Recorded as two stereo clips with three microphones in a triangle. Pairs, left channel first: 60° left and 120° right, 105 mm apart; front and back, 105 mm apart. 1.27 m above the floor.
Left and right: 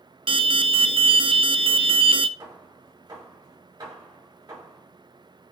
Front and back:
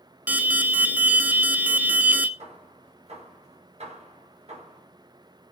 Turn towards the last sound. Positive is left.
turn(degrees=-170)